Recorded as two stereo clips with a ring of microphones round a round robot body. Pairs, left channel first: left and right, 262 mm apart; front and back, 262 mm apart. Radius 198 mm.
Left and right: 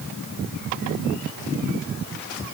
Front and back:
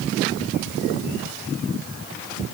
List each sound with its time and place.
Only background noise.